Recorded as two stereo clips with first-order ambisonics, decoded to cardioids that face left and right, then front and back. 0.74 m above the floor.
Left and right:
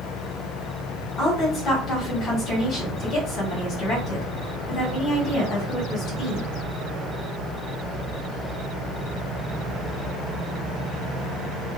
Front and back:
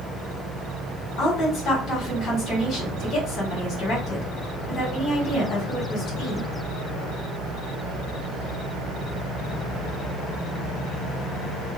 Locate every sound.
1.2 s a woman speaking: 45° left, 1.6 m